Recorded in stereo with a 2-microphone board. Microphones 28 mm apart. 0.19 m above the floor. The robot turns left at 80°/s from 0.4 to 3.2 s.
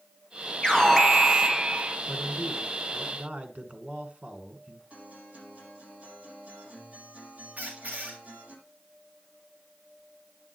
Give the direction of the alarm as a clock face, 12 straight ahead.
11 o'clock.